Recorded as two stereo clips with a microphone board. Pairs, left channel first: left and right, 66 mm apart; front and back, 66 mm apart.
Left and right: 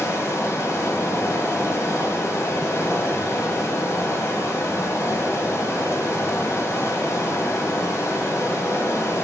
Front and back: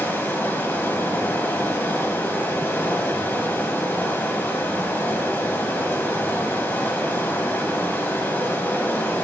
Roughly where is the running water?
Ahead left.